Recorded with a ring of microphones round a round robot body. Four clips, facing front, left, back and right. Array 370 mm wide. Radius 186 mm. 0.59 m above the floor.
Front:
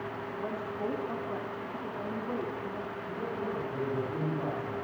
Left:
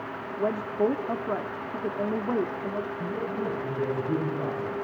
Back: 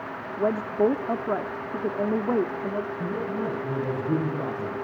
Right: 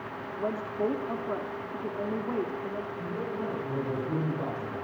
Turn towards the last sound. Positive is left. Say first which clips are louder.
# left 3 dB, back 7 dB
turn(degrees=175)